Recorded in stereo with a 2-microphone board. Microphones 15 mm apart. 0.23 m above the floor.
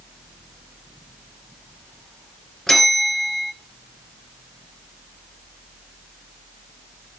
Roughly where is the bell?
Left.